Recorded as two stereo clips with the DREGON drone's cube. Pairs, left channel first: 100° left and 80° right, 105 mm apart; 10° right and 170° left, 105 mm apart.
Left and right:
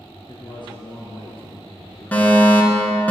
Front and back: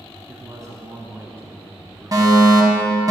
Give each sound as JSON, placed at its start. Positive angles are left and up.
{"t": 0.3, "sound": "a man speaking", "azimuth_deg": 130, "distance_m": 3.0}
{"t": 2.1, "sound": "a fire alarm", "azimuth_deg": 165, "distance_m": 2.5}